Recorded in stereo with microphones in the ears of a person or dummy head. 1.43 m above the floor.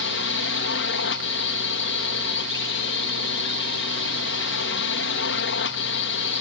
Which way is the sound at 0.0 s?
55° left (ahead or behind).